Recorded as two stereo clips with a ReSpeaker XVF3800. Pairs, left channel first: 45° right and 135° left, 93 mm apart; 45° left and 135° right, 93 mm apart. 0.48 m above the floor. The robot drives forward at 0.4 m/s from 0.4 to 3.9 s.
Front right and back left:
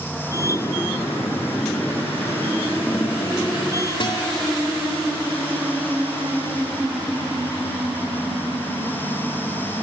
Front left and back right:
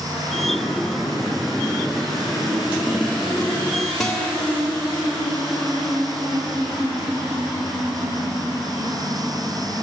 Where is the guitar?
40° right, 1.8 m.